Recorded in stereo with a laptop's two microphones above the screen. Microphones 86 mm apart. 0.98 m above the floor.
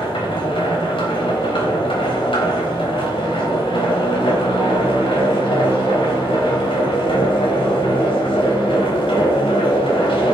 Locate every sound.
0.0 s a machine running: 90° left, 3.5 m